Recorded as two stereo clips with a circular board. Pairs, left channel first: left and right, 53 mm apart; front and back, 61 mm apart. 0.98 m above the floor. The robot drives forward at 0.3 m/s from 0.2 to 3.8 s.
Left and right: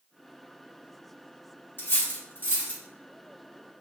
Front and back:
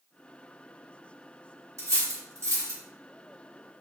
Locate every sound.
1.8 s cutlery clinking: 140° left, 1.2 m; by 2.8 s 145° left, 1.4 m